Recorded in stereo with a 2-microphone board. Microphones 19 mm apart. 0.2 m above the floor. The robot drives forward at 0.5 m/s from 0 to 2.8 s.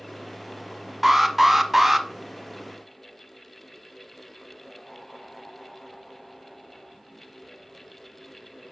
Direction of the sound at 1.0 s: 10° right (ahead or behind).